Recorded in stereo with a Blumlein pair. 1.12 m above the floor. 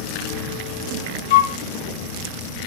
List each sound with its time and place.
1.3 s a flute: 60° left, 0.8 m